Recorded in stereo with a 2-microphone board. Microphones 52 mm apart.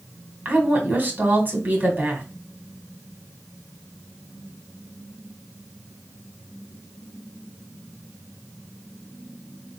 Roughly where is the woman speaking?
Right.